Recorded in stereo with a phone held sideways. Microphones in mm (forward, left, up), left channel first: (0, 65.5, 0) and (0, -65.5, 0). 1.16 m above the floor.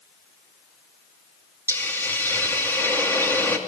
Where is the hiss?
20° left (ahead or behind), 2.5 m.